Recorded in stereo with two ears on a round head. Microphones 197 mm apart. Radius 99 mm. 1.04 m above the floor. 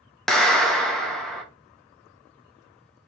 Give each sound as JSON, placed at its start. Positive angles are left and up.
{"t": 0.3, "sound": "a clap", "side_deg": 0, "distance_m": 0.6}